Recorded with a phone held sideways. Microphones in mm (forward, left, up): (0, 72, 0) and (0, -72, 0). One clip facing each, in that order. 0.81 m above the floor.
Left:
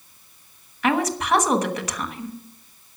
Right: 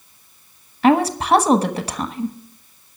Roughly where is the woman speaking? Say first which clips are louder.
Right 6 dB; right.